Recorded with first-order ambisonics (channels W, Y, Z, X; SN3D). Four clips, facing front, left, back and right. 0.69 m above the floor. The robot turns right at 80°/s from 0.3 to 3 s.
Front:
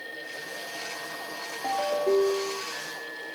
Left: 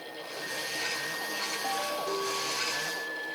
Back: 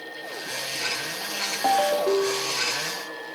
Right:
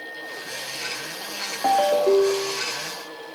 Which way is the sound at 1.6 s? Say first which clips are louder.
Right 18 dB, back 4 dB; 130° right.